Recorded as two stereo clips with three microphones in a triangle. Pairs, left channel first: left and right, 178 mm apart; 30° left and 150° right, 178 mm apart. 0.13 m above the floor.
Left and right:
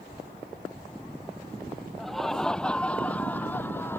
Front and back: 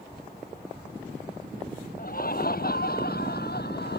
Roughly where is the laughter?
Ahead.